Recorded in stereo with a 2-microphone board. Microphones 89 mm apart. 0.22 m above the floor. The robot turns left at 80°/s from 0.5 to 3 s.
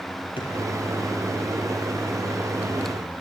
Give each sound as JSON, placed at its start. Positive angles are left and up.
{"t": 0.4, "sound": "a drawer", "side_deg": 80, "distance_m": 3.0}